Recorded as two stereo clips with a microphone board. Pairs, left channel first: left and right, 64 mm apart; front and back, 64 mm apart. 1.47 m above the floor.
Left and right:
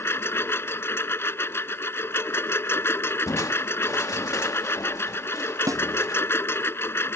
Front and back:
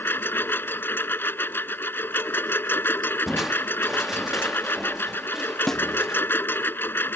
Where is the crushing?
95° left.